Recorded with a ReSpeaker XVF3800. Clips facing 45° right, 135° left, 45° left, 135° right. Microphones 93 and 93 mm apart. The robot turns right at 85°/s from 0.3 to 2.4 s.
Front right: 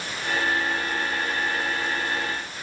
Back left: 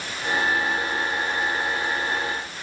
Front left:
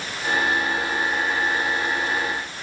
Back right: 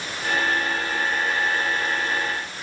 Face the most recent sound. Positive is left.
No sound to turn to.